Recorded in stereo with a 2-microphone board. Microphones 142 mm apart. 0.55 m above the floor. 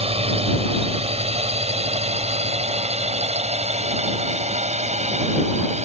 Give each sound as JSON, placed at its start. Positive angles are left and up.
{"t": 0.0, "sound": "a drone", "side_deg": -45}